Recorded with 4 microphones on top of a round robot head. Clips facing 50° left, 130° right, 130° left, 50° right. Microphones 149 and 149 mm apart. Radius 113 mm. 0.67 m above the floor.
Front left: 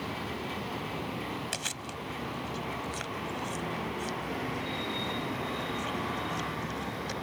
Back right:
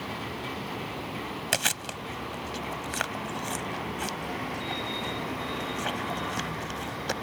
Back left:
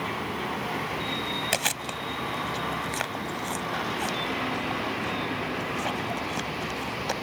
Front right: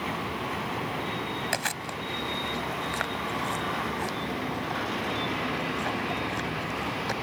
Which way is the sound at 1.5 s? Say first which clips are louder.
Back right 5 dB, back left 2 dB; 160° right.